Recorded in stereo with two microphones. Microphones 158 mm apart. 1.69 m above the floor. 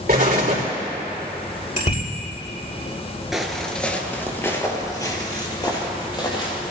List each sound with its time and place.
0.1 s an explosion: 75° right (ahead or behind), 3.5 m
1.8 s a bicycle bell: 60° left (ahead or behind), 5 m
3.3 s footsteps: centre (ahead or behind), 1.8 m; by 6.6 s 30° left (ahead or behind), 4 m